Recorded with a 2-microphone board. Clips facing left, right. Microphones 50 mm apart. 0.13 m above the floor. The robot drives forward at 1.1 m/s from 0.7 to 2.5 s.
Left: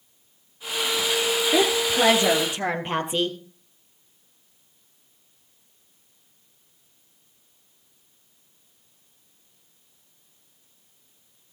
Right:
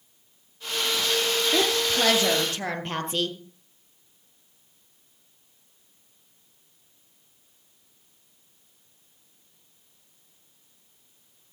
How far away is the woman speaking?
About 2.0 m.